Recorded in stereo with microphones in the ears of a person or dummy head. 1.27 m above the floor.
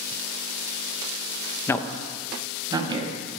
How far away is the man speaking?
About 0.8 m.